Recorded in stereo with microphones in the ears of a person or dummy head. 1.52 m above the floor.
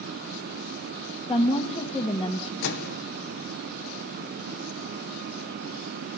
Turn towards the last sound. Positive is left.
turn(degrees=60)  # may be behind; listen again after turning